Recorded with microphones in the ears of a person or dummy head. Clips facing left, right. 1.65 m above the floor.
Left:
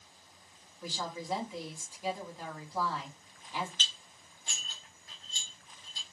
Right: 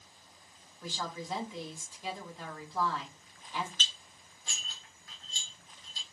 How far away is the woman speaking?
About 1.1 m.